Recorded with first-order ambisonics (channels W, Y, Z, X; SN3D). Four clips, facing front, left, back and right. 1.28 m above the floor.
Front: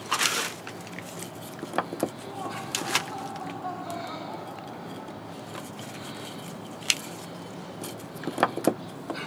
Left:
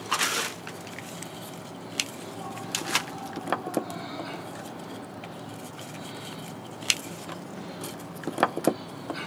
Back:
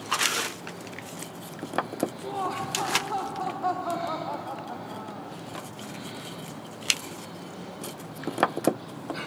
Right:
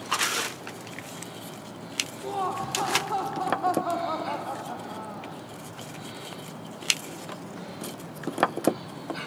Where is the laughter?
120° right, 1.4 m.